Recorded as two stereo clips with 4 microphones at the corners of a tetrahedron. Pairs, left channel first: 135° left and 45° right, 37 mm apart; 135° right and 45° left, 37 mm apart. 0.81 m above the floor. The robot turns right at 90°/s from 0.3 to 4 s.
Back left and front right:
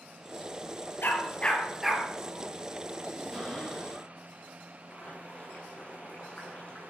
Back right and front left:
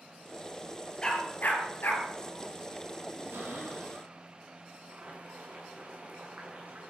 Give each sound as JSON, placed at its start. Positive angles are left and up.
{"t": 1.0, "sound": "a dog barking", "azimuth_deg": 155, "distance_m": 3.5}
{"t": 3.3, "sound": "a cupboard door", "azimuth_deg": 45, "distance_m": 9.0}
{"t": 4.9, "sound": "boiling", "azimuth_deg": 85, "distance_m": 8.5}